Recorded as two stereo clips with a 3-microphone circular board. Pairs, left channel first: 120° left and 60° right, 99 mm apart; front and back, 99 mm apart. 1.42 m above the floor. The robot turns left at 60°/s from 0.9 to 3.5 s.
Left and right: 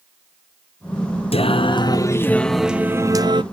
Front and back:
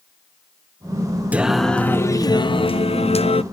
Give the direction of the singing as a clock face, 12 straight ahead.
8 o'clock.